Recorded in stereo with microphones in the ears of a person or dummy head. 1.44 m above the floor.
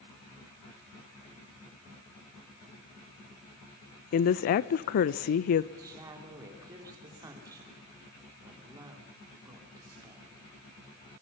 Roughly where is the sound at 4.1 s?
Left.